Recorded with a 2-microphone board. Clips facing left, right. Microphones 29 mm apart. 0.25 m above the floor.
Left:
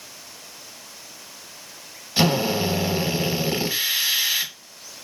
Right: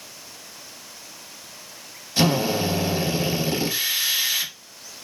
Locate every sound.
2.2 s a drill: 25° left (ahead or behind), 0.9 m